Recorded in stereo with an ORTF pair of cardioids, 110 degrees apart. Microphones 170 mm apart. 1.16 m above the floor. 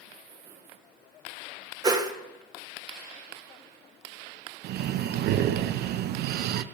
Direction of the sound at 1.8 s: 20° right.